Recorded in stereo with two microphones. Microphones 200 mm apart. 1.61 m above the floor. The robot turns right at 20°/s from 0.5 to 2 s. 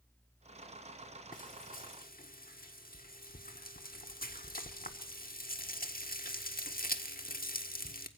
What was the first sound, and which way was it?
Frying, 45° left (ahead or behind).